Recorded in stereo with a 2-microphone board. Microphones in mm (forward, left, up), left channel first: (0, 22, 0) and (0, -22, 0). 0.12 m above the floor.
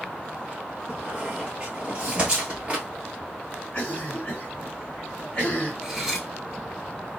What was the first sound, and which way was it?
A squeak, 25° right (ahead or behind).